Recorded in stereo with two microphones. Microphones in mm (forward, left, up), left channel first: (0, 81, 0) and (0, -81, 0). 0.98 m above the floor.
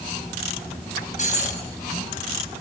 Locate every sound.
1.2 s breaking glass: 45° left (ahead or behind), 7 m